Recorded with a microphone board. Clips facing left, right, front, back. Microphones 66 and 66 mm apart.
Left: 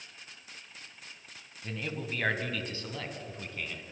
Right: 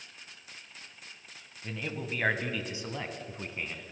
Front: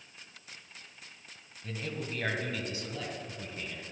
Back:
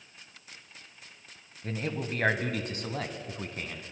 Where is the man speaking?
175° right, 1.2 m; by 3.9 s 155° right, 2 m.